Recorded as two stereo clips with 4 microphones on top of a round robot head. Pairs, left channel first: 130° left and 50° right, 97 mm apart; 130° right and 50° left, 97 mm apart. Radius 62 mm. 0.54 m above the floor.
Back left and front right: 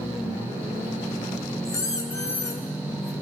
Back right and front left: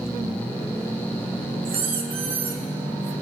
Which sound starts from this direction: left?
A squeak, at 1.6 s.